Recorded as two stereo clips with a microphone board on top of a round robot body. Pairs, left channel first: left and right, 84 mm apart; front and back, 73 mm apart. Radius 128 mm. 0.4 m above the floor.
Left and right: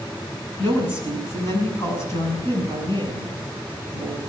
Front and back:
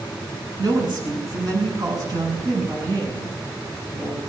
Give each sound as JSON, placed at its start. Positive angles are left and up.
{"t": 0.6, "sound": "a woman speaking", "azimuth_deg": 145, "distance_m": 5.0}